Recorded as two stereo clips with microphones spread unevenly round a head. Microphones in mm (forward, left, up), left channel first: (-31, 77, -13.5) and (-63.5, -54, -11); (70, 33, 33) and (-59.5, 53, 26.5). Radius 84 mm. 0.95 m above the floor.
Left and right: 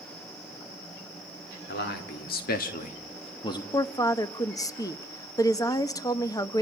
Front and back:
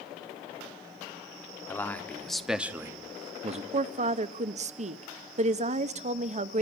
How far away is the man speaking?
About 2 m.